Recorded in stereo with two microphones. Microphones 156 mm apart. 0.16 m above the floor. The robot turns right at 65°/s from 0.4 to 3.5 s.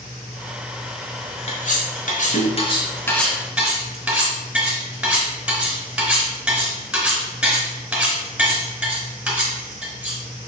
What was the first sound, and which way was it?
Cutlery clinking, 45° left (ahead or behind).